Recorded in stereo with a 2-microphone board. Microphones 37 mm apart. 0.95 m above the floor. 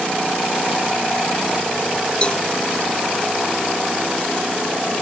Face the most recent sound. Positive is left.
turn(degrees=30)  # may be behind; listen again after turning